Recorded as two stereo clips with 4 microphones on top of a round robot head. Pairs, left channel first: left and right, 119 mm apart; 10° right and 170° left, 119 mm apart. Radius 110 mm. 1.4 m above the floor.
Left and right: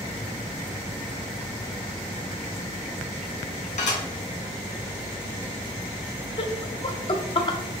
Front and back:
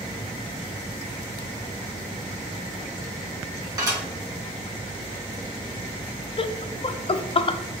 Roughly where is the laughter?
Ahead left.